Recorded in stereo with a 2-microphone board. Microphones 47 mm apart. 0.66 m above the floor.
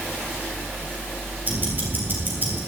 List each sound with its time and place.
1.5 s ticking: 45° right (ahead or behind), 3 m